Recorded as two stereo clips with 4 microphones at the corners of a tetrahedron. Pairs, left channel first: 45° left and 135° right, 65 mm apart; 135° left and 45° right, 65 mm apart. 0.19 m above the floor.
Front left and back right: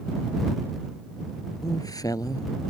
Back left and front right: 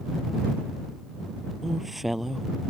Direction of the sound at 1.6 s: 45° left.